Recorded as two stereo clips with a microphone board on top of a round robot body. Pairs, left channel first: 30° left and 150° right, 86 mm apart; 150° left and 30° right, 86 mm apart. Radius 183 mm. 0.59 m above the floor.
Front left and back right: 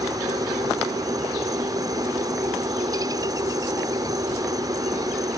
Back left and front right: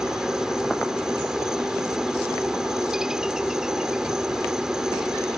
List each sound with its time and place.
0.0 s a helicopter: 110° right